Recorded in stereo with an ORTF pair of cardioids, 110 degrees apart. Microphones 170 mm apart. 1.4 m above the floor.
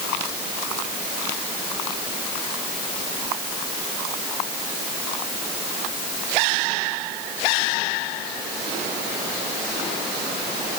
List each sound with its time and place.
Only background noise.